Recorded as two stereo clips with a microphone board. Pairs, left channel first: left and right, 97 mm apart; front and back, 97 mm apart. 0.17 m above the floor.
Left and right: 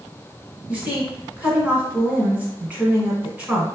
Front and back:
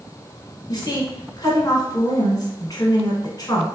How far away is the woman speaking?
About 1.4 m.